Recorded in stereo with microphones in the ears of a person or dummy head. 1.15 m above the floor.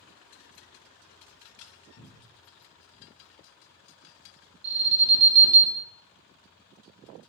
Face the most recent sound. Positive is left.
turn(degrees=-30)  # may be behind; listen again after turning